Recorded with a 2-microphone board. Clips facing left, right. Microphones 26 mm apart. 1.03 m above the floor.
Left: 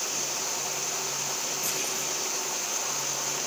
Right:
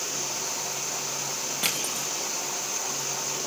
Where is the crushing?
65° right (ahead or behind), 2.5 m.